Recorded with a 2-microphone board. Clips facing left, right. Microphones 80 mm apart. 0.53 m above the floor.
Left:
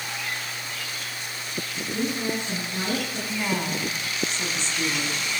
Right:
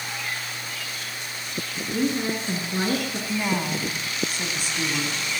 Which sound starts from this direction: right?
A woman speaking, at 1.9 s.